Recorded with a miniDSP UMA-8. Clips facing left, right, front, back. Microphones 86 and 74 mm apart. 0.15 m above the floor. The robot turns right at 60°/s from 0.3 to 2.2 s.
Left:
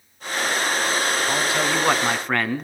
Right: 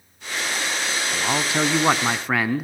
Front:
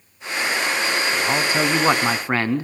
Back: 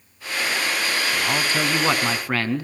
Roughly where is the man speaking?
Right.